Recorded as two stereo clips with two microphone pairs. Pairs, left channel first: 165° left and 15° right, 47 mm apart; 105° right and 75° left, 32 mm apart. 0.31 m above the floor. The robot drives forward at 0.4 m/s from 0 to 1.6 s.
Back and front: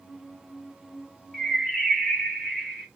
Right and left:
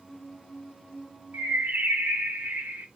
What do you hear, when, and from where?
1.3 s a bird: 80° left, 1.2 m; by 2.9 s 85° left, 1.2 m